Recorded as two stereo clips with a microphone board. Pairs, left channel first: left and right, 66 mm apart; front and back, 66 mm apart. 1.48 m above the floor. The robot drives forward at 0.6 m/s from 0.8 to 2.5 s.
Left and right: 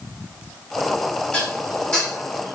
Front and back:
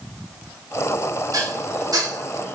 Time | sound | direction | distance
1.3 | dishes clattering | 160° left | 1.5 m